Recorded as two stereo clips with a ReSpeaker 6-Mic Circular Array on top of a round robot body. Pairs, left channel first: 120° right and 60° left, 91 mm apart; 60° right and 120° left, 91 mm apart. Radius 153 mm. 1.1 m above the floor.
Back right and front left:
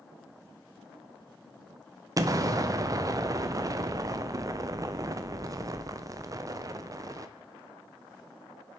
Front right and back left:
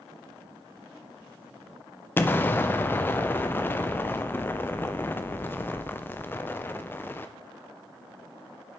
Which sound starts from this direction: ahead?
An explosion, at 2.2 s.